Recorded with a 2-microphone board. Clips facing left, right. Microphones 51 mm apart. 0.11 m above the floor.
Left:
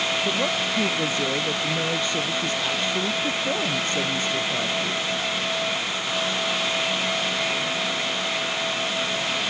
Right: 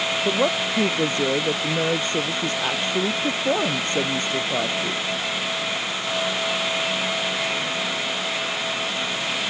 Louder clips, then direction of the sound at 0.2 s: Right 3 dB; 35° right (ahead or behind).